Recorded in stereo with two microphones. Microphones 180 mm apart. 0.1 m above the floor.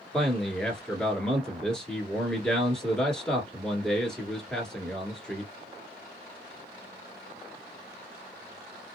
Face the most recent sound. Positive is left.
turn(degrees=5)  # may be behind; listen again after turning